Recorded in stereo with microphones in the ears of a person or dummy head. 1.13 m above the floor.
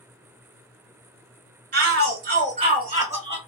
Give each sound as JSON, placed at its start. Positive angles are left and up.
{"t": 1.7, "sound": "a shout", "side_deg": -50, "distance_m": 1.0}